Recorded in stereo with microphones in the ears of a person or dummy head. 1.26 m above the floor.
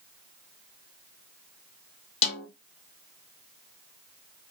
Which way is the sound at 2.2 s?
30° left (ahead or behind).